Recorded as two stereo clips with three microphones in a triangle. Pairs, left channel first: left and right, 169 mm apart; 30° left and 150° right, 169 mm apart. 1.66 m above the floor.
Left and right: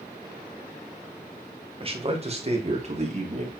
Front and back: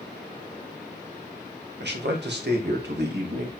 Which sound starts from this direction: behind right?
A man speaking, at 1.8 s.